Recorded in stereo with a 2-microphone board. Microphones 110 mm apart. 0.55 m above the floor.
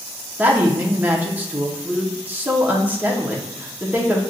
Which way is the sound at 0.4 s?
15° right (ahead or behind).